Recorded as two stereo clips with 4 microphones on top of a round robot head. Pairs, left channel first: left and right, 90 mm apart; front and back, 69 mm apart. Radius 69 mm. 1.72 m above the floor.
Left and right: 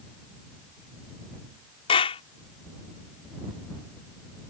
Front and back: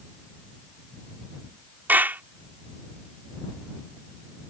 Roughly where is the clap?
Behind left.